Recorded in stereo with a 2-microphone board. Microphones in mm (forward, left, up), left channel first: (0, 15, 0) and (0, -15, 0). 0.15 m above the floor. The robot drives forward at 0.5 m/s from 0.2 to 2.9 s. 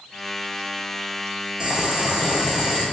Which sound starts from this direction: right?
Boiling, at 1.6 s.